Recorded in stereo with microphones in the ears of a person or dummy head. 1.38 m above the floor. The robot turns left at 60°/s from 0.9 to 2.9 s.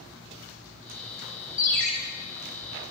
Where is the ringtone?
20° left (ahead or behind), 1.2 m; by 1.9 s centre (ahead or behind), 1.2 m.